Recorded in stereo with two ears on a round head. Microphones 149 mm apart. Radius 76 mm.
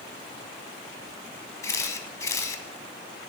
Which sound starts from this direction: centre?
A camera shutter, at 1.6 s.